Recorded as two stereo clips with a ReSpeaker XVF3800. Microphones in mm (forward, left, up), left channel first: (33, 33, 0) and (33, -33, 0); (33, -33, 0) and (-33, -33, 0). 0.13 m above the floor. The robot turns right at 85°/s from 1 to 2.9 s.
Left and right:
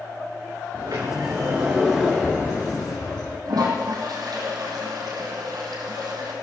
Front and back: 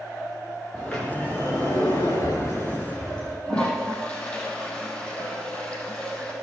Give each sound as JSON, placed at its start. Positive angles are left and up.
{"t": 0.7, "sound": "a sliding door", "azimuth_deg": -80, "distance_m": 6.5}
{"t": 3.5, "sound": "a toilet flushing", "azimuth_deg": -75, "distance_m": 4.0}